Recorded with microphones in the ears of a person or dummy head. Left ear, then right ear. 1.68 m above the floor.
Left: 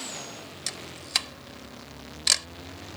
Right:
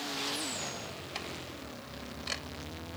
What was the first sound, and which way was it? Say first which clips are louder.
A camera shutter: left 8 dB; 40° left (ahead or behind).